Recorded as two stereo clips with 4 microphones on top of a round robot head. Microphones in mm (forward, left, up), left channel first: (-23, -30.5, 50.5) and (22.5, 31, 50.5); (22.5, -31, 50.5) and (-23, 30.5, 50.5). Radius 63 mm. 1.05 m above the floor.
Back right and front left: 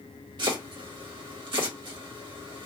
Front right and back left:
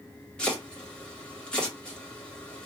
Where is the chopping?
25° left, 1.2 m.